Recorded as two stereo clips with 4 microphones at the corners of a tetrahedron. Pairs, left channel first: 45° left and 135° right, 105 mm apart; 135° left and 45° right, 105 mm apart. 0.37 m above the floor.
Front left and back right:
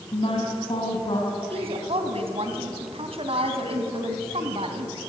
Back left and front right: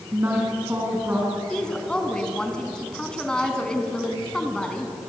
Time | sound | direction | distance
0.1 | a woman speaking | 25° left | 4 m
1.5 | a woman speaking | 145° right | 3 m